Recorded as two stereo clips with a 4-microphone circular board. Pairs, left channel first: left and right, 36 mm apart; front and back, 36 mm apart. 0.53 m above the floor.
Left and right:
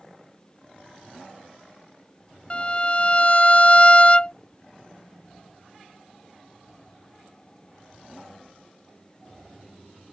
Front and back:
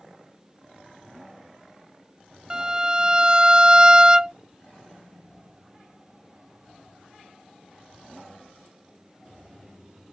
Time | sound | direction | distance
2.5 | a violin | 125° left | ?